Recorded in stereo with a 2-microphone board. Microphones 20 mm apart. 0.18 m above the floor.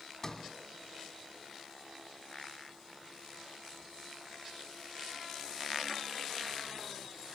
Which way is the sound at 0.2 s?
20° left (ahead or behind).